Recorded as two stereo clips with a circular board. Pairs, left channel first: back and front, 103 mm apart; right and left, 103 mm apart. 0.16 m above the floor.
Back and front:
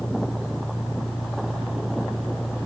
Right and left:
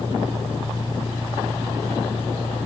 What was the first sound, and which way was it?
An engine running, 125° right.